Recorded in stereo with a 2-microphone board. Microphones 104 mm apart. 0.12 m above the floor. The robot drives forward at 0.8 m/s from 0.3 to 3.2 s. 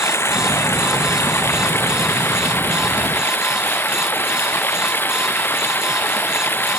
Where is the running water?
25° left (ahead or behind); by 6.8 s 20° left (ahead or behind).